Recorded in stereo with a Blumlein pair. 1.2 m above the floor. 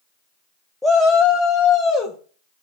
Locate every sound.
0.8 s a shout: 5° left, 0.5 m; by 2.2 s 25° left, 2 m